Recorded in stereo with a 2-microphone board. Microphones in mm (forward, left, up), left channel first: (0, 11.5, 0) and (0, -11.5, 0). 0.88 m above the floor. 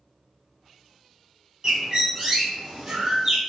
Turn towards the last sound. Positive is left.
turn(degrees=-35)  # may be behind; listen again after turning